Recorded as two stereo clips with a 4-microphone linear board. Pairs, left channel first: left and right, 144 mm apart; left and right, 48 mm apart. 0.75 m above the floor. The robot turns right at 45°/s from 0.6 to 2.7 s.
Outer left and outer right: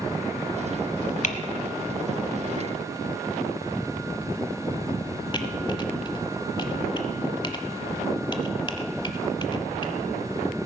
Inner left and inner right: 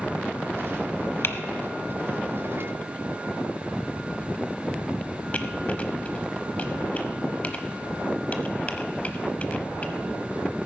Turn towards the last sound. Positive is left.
turn(degrees=35)  # may be behind; listen again after turning